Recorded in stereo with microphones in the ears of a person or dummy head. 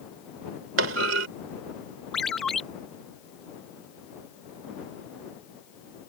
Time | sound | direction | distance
0.8 | a clunk | 80° right | ?
2.1 | a ringtone | centre (ahead or behind) | ?